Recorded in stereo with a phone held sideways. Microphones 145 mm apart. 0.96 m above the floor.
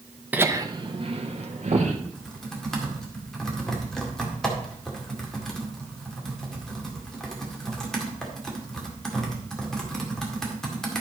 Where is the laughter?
10° right (ahead or behind), 0.9 m; by 1.9 s 60° right (ahead or behind), 2 m.